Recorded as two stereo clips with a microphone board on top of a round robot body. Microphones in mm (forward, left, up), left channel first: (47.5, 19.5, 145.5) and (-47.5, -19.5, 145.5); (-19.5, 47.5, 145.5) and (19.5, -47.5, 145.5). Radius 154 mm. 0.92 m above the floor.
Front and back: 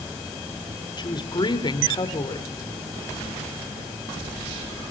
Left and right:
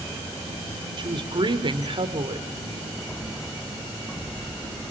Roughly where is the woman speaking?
Ahead right.